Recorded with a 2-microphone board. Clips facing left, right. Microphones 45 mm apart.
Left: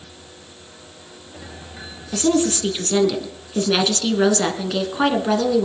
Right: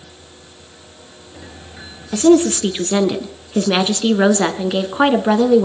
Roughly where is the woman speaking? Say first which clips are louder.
Right 7 dB; right.